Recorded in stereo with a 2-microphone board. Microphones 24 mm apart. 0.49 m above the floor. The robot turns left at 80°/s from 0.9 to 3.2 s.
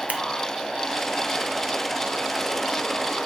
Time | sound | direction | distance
0.1 | scissors | 75° right (ahead or behind) | 0.5 m